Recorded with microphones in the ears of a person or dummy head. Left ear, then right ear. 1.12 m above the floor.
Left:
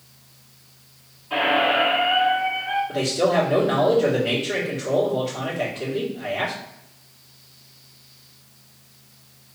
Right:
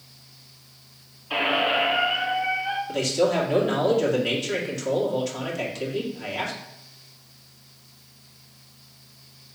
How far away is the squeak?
About 1.2 m.